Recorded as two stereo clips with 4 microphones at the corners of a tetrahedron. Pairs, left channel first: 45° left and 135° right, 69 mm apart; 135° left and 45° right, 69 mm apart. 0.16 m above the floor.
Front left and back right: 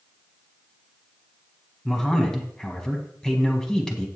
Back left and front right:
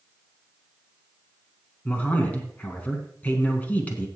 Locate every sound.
1.9 s a man speaking: 110° left, 1.7 m